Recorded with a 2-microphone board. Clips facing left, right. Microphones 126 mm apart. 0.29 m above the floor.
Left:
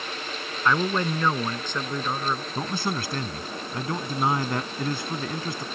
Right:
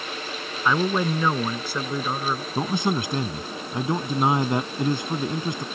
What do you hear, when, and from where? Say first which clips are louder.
0.7 s a man speaking: right 2 dB; 10° right (ahead or behind)
2.5 s a man speaking: right 4 dB; 20° right (ahead or behind)